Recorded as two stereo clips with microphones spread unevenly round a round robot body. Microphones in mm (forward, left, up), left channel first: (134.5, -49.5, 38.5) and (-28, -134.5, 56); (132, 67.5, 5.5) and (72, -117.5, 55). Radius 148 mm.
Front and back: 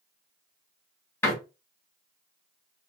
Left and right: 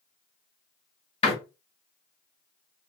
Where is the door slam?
95° left, 0.9 m.